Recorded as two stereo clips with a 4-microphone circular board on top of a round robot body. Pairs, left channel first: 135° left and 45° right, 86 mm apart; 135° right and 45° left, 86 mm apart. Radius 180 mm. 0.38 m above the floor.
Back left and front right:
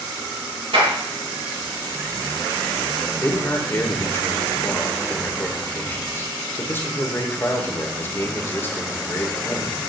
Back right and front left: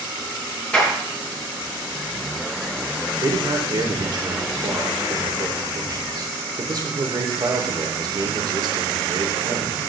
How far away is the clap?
About 5 m.